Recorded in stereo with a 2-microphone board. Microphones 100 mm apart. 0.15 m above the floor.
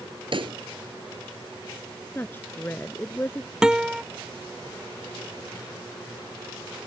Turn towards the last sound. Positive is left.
turn(degrees=-5)  # may be behind; listen again after turning